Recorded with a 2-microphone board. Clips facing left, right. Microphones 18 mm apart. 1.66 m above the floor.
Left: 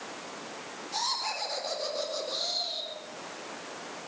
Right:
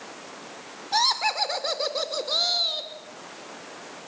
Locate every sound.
0.9 s laughter: 75° right (ahead or behind), 5.5 m